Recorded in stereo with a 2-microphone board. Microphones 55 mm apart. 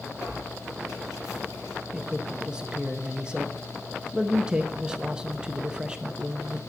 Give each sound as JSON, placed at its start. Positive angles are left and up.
{"t": 0.2, "sound": "tearing paper", "side_deg": 75, "distance_m": 6.0}
{"t": 1.9, "sound": "a man speaking", "side_deg": -15, "distance_m": 0.7}